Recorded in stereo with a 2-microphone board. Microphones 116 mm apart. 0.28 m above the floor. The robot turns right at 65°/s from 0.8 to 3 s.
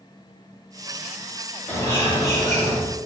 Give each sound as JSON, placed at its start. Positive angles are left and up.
{"t": 1.7, "sound": "a bird", "side_deg": 20, "distance_m": 1.1}